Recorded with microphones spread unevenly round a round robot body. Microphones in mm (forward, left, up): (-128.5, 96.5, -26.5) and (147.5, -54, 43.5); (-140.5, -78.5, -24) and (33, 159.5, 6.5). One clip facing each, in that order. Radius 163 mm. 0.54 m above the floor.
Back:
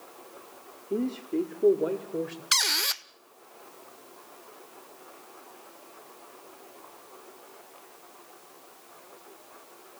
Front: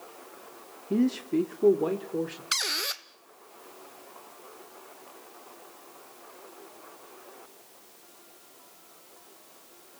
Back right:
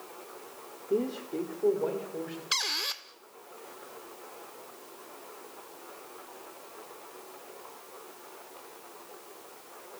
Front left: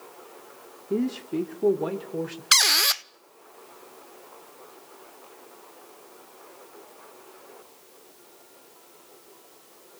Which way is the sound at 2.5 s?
80° left.